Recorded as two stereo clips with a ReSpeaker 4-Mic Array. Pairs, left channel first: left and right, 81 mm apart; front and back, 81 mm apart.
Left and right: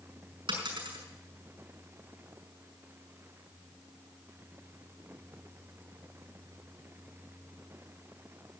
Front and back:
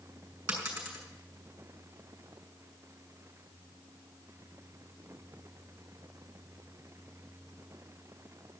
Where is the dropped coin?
105° right, 5.5 m.